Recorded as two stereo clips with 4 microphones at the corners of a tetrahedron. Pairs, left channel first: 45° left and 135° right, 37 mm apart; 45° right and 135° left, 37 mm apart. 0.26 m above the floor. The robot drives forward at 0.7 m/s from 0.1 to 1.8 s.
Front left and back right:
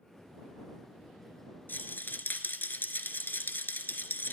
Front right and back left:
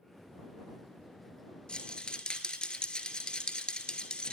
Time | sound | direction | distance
1.7 | a rattle | 20° left | 1.1 m